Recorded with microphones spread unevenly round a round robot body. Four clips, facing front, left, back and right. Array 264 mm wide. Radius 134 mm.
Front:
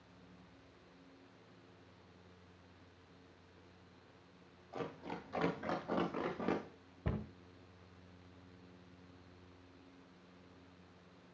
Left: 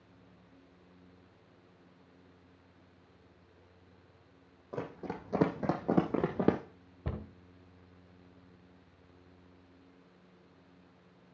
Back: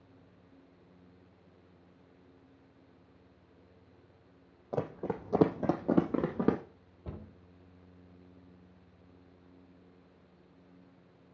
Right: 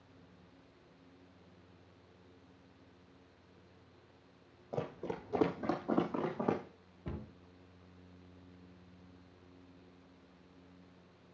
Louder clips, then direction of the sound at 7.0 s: Left 3 dB, front 4 dB; 50° left.